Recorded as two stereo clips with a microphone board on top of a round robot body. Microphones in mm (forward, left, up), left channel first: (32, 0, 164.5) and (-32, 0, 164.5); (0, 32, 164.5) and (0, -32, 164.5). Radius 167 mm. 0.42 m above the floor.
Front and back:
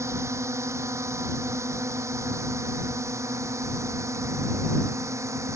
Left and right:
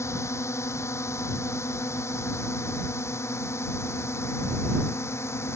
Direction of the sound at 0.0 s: 135° left.